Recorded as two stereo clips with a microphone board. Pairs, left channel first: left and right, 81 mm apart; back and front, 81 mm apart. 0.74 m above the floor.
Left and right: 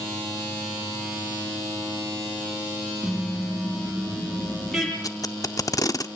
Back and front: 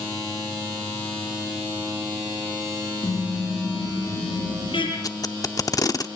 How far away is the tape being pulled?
About 0.8 m.